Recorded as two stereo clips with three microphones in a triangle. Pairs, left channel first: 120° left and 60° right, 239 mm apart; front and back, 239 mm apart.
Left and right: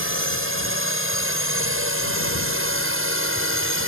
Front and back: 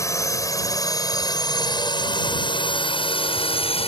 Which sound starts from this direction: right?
A drone, at 0.0 s.